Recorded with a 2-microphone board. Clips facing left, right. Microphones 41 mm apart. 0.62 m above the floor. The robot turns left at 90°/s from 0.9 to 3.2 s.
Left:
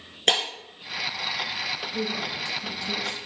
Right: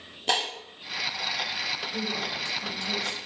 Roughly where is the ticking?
I don't hear ticking.